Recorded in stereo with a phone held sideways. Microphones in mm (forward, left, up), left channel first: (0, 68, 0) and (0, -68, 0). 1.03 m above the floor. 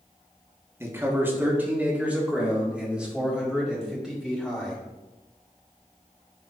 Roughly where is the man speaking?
Centre.